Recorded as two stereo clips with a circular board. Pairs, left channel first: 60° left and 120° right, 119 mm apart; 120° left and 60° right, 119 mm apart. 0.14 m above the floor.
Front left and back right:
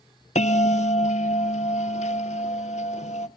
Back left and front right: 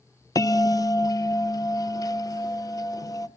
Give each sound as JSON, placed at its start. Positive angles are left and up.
{"t": 0.3, "sound": "a bell", "azimuth_deg": 60, "distance_m": 0.6}